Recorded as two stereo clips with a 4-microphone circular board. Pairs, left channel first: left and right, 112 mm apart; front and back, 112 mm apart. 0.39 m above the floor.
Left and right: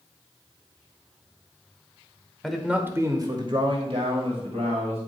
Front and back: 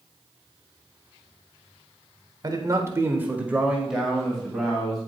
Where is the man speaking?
175° left, 1.3 m; by 5.0 s 85° right, 3 m.